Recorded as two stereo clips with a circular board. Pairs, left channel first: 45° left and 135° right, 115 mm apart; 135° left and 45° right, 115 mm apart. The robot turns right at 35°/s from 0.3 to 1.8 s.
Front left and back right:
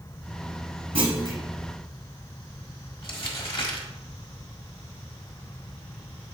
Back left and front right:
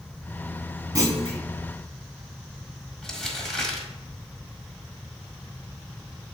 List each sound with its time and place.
0.9 s a clunk: 100° right, 1.6 m; by 1.4 s 85° right, 1.6 m
3.0 s crumpling: 50° left, 1.5 m